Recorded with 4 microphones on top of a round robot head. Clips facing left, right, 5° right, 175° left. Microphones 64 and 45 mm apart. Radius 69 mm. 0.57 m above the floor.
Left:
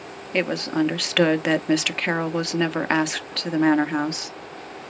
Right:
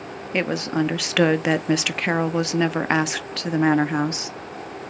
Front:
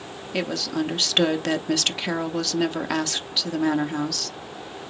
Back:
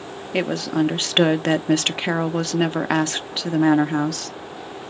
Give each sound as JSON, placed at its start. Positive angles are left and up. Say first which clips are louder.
{"t": 0.3, "sound": "a woman speaking", "louder": "even, back 5 dB", "azimuth_deg": -170, "distance_m": 0.7}